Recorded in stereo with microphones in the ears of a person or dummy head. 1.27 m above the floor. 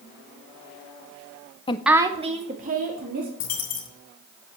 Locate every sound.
1.7 s a woman speaking: 25° left (ahead or behind), 0.5 m; by 3.3 s 45° right (ahead or behind), 2.5 m
3.4 s a dropped coin: 50° left (ahead or behind), 2.5 m